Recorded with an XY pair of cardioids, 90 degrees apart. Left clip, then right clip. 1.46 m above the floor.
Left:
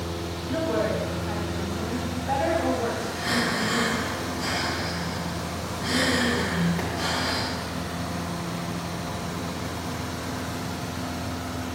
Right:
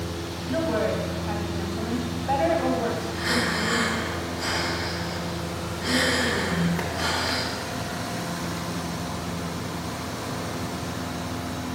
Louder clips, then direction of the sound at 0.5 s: Right 1 dB; 30° right.